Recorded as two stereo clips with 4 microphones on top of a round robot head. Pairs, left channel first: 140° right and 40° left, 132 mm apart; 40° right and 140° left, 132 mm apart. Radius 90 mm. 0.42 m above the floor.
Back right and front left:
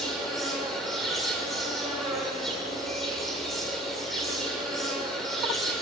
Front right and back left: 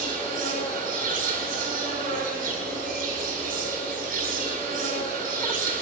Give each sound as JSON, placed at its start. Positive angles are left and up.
{"t": 0.0, "sound": "an insect", "azimuth_deg": 130, "distance_m": 7.0}